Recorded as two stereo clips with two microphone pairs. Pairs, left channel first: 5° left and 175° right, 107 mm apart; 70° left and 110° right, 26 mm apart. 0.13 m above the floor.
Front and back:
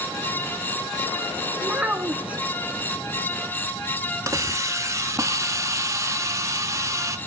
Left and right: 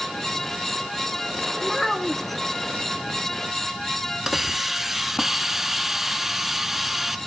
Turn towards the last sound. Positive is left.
turn(degrees=170)